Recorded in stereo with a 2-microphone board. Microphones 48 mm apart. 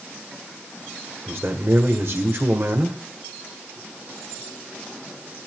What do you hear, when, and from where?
1.3 s a man speaking: 45° right (ahead or behind), 1.8 m